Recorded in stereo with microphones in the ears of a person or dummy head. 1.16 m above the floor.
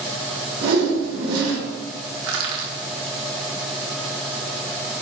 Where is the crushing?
70° right (ahead or behind), 1.6 m.